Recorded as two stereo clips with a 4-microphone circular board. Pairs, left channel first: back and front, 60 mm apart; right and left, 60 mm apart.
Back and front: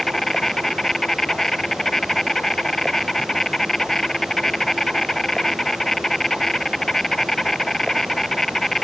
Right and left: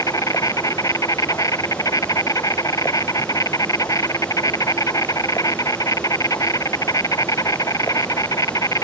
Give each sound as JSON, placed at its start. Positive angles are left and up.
{"t": 0.0, "sound": "an insect", "azimuth_deg": -95}